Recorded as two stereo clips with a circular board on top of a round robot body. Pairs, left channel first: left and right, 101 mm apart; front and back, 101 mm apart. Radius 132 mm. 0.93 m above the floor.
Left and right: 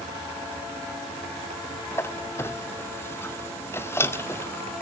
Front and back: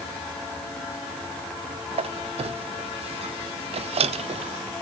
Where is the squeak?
155° left, 1.4 m.